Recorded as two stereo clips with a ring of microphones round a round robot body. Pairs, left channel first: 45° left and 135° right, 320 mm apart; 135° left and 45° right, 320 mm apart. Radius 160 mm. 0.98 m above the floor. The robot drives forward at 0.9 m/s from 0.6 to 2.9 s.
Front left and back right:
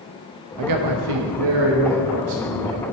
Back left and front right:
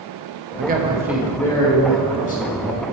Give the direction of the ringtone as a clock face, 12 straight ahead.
No ringtone in this recording.